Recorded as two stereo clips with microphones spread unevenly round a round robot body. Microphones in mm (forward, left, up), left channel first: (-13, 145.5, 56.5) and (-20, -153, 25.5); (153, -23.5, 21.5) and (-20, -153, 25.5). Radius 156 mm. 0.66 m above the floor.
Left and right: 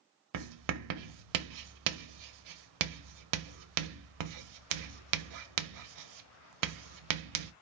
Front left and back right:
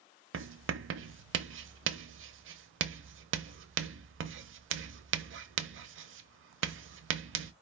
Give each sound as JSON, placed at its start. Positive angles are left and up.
{"t": 0.3, "sound": "writing", "azimuth_deg": -120, "distance_m": 0.8}